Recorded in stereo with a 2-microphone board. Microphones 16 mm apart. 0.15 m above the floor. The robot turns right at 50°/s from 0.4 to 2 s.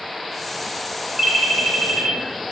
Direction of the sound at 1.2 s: 20° right.